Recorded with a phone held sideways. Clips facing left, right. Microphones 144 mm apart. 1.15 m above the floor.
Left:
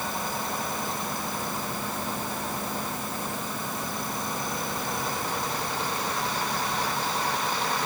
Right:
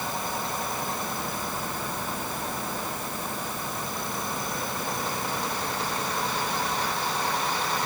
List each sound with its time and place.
Only background noise.